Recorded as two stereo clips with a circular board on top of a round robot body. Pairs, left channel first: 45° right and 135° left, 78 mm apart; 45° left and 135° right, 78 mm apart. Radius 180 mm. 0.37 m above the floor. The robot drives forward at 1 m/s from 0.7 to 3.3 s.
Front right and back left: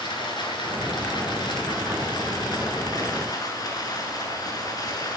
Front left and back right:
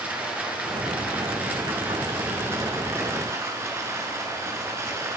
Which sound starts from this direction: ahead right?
Running water, at 0.0 s.